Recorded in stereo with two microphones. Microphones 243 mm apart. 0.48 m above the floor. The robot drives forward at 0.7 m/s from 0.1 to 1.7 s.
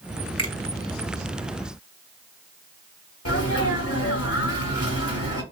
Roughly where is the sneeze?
Left.